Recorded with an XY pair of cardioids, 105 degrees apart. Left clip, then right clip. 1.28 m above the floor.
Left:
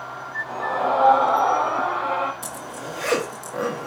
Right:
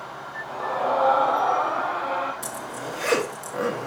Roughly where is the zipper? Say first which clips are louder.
Right 1 dB; ahead.